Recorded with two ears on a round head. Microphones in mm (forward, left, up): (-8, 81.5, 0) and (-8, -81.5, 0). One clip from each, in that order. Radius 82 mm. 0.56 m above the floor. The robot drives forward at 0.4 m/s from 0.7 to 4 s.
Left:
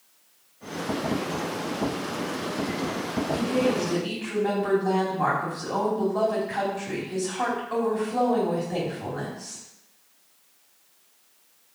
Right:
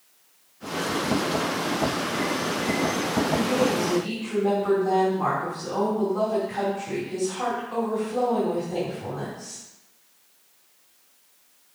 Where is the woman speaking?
45° left (ahead or behind), 3 m.